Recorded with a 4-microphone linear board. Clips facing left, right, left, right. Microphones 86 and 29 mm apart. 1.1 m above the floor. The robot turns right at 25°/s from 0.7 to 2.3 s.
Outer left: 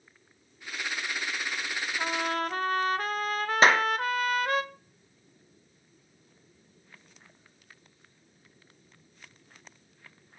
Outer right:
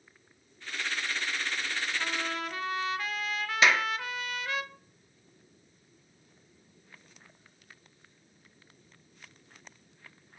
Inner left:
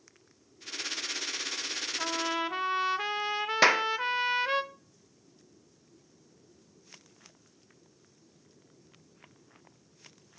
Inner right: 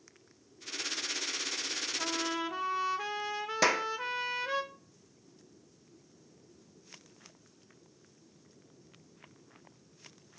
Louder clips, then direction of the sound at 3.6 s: Outer left 4 dB, inner left 5 dB; 40° left (ahead or behind).